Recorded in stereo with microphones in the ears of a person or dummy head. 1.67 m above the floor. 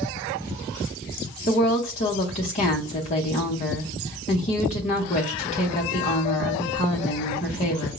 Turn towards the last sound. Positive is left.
turn(degrees=25)  # may be behind; listen again after turning